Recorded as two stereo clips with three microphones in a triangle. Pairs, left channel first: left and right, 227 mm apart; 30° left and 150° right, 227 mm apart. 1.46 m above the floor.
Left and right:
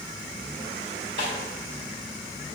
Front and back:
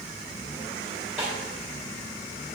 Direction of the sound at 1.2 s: 65° right.